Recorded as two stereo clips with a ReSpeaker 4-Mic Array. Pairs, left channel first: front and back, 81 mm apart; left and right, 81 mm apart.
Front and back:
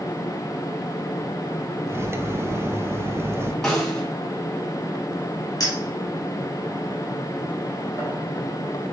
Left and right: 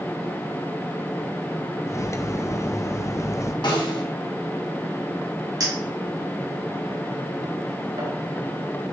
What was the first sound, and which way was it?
Cutlery clinking, 130° left.